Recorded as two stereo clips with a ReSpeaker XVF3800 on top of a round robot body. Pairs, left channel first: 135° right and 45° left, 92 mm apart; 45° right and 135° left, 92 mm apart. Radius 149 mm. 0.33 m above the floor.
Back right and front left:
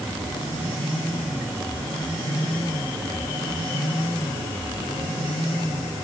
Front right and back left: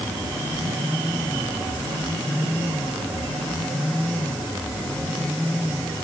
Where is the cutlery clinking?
I don't hear cutlery clinking.